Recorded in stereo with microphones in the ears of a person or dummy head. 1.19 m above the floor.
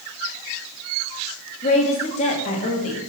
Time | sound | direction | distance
1.6 | a woman speaking | 35° left (ahead or behind) | 1.9 m